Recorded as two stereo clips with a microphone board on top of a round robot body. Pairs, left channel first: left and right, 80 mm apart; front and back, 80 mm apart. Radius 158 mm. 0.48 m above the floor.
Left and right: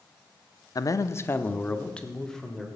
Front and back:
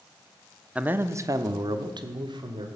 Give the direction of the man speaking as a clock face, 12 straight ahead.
8 o'clock.